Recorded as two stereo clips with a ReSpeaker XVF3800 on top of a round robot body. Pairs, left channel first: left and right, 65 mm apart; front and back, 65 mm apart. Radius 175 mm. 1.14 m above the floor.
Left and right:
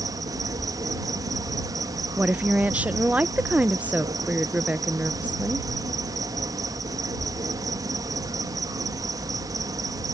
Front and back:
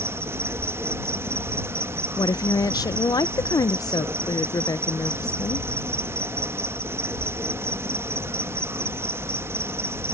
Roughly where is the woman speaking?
Ahead.